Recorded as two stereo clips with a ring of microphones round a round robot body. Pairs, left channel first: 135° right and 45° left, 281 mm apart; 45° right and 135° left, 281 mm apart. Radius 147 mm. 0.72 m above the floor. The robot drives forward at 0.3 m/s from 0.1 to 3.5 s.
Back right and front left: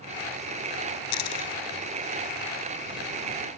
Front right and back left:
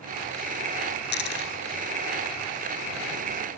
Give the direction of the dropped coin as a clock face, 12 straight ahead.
3 o'clock.